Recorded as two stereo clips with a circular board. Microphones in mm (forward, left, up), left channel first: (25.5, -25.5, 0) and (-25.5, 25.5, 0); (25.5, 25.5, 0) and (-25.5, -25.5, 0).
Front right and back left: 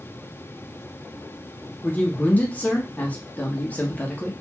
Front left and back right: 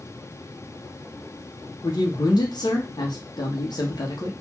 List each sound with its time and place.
1.8 s a man speaking: 25° left, 0.9 m